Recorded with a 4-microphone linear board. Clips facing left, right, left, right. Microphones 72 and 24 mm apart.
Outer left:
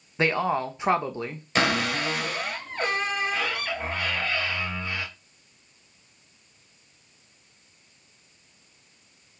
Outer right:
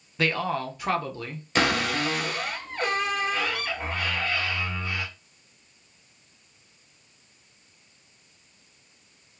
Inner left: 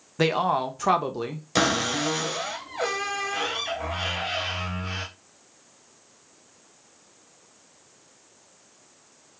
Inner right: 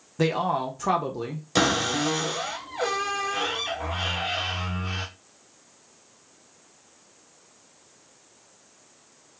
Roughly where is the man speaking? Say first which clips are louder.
Outer left 2 dB, inner left 2 dB; left.